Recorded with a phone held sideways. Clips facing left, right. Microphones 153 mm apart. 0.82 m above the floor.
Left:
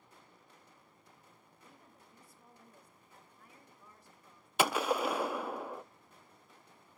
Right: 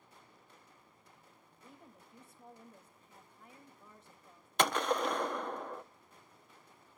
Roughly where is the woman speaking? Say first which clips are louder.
Right 4 dB; right.